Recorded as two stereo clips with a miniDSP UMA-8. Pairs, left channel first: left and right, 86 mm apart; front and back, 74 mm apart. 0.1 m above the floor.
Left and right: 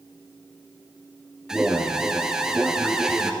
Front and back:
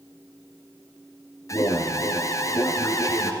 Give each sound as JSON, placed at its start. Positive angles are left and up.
{"t": 1.5, "sound": "an alarm", "azimuth_deg": -10, "distance_m": 1.9}